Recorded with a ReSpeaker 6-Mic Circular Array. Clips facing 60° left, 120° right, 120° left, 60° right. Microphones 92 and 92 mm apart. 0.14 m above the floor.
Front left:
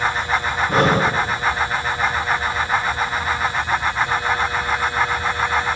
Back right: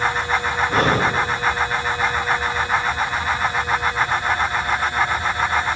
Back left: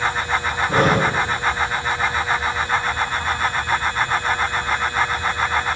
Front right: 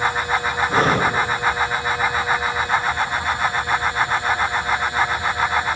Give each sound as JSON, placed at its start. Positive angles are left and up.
{"t": 0.7, "sound": "breathing", "azimuth_deg": 75, "distance_m": 4.0}